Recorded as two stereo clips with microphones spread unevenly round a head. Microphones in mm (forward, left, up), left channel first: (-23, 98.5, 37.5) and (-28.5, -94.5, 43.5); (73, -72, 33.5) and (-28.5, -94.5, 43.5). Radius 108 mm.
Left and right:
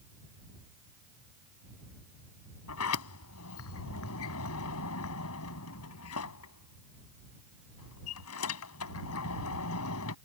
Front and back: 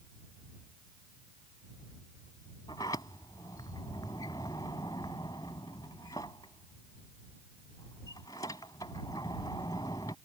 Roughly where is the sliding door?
Left.